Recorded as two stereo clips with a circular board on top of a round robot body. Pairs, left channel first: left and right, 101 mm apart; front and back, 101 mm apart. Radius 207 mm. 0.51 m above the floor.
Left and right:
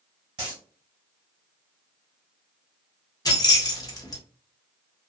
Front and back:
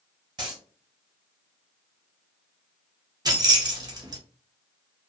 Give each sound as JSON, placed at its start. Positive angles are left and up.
{"t": 0.4, "sound": "a dropped coin", "azimuth_deg": -135, "distance_m": 1.2}
{"t": 3.2, "sound": "keys jangling", "azimuth_deg": 135, "distance_m": 1.1}